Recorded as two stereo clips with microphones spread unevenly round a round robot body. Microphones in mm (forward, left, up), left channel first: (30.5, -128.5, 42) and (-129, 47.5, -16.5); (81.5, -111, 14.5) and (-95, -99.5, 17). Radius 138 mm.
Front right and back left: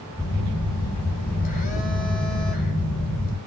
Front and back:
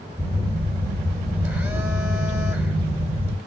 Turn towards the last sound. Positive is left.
turn(degrees=-100)